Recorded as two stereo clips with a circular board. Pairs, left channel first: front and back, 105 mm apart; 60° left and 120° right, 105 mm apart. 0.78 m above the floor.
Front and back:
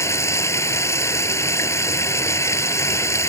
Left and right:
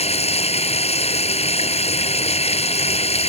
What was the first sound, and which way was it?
Running water, 65° left.